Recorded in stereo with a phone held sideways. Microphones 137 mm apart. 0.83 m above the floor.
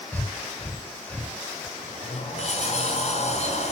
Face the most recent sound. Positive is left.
turn(degrees=55)  # may be behind; listen again after turning